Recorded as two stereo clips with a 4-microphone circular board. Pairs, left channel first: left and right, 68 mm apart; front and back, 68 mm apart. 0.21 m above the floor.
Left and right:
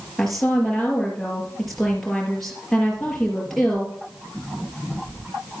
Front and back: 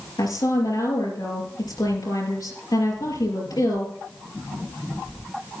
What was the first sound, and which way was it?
A woman speaking, 5° left.